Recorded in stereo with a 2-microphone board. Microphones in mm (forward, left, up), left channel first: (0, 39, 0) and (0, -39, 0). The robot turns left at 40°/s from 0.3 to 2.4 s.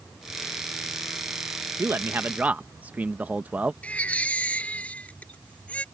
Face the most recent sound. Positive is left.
turn(degrees=15)  # may be behind; listen again after turning